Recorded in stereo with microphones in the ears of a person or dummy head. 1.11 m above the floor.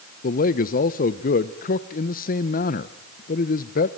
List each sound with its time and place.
0.2 s a man speaking: 40° left (ahead or behind), 0.9 m